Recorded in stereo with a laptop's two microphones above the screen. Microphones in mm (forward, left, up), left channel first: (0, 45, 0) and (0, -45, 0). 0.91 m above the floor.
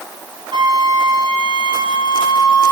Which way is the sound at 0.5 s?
55° right (ahead or behind).